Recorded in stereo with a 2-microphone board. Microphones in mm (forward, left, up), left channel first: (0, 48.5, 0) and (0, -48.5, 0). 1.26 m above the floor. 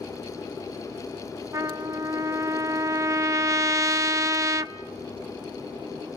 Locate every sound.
1.5 s a trumpet: 35° right (ahead or behind), 0.7 m